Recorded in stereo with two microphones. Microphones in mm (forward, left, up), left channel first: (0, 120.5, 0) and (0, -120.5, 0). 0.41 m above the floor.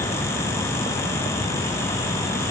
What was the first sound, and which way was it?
Only background noise.